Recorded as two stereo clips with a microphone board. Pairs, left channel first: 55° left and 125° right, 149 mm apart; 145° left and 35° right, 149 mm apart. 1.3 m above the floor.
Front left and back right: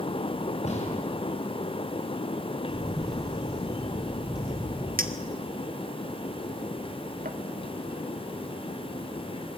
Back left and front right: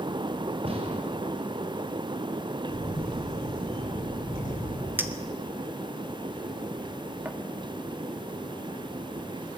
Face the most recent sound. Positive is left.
turn(degrees=-110)